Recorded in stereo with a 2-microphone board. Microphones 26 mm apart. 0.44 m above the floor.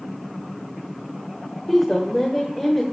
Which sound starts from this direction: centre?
A woman speaking, at 1.7 s.